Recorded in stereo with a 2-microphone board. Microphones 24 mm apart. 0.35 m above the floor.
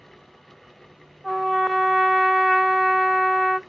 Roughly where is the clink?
No clink in this recording.